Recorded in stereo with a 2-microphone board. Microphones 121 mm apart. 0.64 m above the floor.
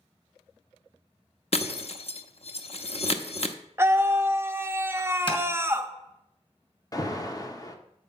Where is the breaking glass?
55° left (ahead or behind), 0.7 m.